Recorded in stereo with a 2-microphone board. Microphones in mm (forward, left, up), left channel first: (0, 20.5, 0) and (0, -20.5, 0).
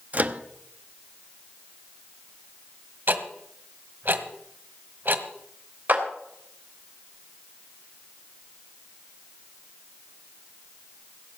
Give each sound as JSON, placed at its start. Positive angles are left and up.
{"t": 0.1, "sound": "a microwave", "side_deg": -40, "distance_m": 0.8}
{"t": 3.1, "sound": "ticking", "side_deg": -55, "distance_m": 1.4}
{"t": 5.9, "sound": "a clap", "side_deg": -50, "distance_m": 3.0}